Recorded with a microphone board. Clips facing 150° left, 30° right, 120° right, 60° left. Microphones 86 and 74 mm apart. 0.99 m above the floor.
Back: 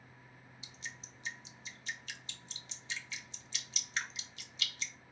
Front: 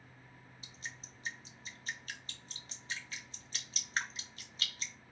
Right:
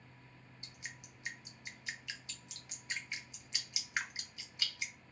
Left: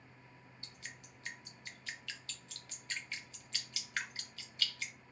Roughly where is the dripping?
Ahead right.